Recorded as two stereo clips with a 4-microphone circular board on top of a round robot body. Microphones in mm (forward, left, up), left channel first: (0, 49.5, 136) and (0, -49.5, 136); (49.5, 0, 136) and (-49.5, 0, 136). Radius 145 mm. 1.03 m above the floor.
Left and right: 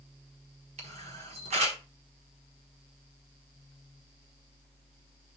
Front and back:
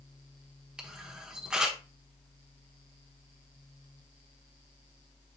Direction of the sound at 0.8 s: 95° right.